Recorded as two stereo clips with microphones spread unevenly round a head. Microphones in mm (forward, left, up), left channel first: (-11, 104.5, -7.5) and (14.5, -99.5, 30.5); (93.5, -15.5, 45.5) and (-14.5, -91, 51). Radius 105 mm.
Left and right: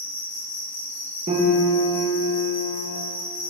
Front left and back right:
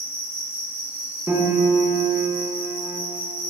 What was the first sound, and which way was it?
An insect, 175° right.